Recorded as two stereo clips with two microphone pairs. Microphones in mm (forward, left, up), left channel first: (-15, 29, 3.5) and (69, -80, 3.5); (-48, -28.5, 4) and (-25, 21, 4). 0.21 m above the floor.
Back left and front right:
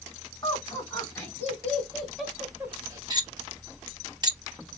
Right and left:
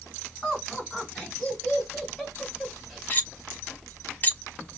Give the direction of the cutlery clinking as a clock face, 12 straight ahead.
3 o'clock.